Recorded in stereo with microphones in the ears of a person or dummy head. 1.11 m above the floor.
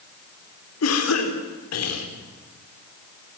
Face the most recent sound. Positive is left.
turn(degrees=80)